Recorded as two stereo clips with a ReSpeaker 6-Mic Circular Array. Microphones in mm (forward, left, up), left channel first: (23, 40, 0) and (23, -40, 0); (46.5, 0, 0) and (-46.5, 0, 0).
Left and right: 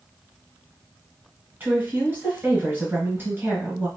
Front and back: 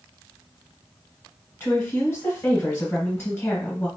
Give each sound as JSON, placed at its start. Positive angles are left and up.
{"t": 1.6, "sound": "a woman speaking", "azimuth_deg": -45, "distance_m": 1.3}